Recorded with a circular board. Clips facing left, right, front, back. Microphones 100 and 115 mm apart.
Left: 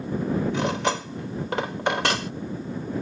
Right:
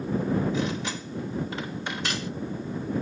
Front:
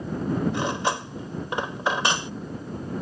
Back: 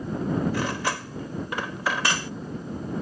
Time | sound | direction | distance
0.5 | cutlery clinking | 70° left | ?